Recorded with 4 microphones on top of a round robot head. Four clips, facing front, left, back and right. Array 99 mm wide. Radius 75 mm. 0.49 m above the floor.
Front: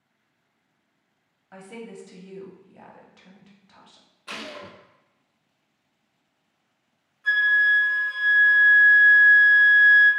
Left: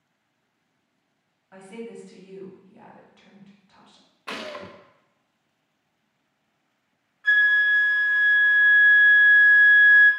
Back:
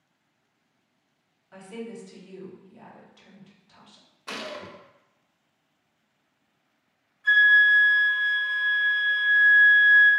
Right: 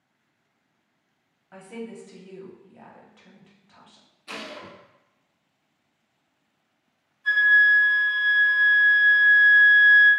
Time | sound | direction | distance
1.5 | a woman speaking | 10° right | 1.3 m
4.3 | a gunshot | 105° left | 0.5 m
7.2 | a flute | 75° left | 1.8 m